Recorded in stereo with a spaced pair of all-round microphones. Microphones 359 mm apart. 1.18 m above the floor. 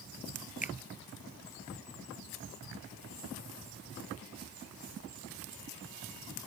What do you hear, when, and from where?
0.6 s a finger snap: 20° left (ahead or behind)